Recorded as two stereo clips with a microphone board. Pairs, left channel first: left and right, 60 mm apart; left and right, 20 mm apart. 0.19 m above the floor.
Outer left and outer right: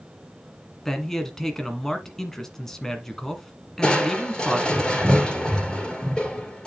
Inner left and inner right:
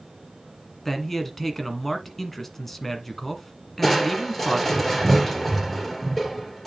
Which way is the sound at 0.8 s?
10° left (ahead or behind).